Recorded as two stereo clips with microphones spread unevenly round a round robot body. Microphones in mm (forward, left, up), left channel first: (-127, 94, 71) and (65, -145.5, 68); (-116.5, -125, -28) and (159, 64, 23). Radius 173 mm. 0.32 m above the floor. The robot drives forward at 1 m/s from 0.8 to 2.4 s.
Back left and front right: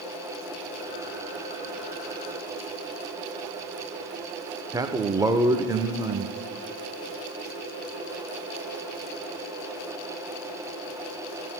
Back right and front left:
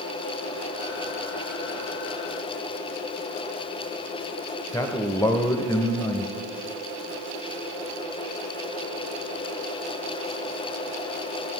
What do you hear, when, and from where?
4.7 s a man speaking: 110° right, 0.9 m